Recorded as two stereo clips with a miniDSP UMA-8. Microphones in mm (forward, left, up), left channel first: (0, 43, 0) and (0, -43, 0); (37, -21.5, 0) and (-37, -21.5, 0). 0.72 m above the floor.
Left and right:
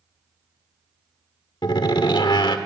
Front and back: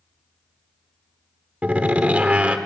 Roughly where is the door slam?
Left.